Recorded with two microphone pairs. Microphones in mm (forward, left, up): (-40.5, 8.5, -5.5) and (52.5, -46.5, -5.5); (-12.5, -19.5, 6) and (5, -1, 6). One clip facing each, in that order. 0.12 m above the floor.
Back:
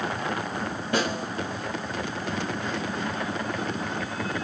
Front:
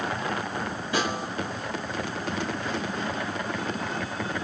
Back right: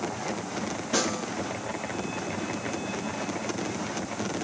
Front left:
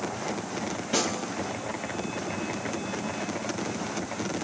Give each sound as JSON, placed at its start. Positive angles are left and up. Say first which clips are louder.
{"t": 0.9, "sound": "a snare drum", "louder": "back 1 dB, even", "azimuth_deg": 130, "distance_m": 2.5}